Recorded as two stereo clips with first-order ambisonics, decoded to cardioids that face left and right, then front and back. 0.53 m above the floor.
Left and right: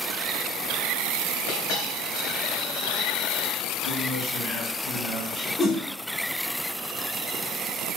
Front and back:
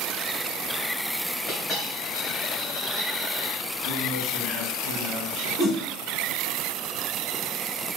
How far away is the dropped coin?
About 2 m.